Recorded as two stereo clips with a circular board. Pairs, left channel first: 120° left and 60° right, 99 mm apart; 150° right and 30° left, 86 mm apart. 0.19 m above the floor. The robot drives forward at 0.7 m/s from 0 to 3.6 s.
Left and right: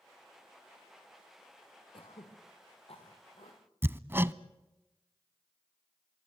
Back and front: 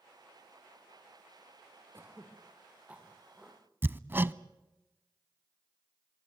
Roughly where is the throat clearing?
Left.